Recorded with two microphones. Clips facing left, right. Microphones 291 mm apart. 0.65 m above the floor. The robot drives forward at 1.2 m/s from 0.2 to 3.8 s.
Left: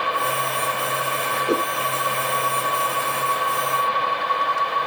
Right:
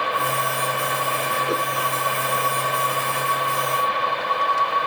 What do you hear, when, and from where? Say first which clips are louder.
1.5 s a whoosh: left 5 dB; 35° left (ahead or behind)